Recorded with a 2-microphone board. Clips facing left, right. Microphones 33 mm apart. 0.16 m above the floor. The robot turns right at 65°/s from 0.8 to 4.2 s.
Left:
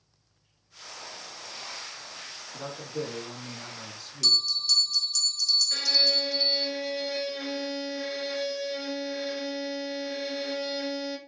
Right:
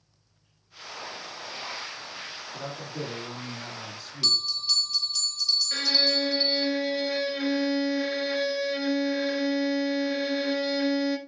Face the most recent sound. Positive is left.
turn(degrees=-25)  # may be behind; listen again after turning